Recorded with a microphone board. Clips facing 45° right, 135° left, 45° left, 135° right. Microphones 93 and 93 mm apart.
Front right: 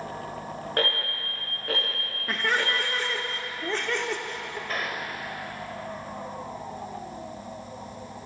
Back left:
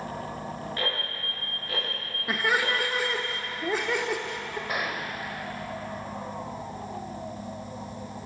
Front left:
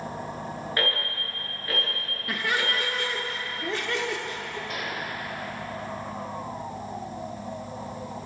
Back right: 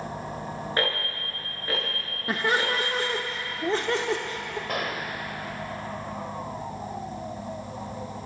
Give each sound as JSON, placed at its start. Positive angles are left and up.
{"t": 0.8, "sound": "an alarm", "azimuth_deg": -75, "distance_m": 7.5}
{"t": 2.3, "sound": "laughter", "azimuth_deg": -150, "distance_m": 0.8}
{"t": 4.7, "sound": "a gunshot", "azimuth_deg": -150, "distance_m": 1.5}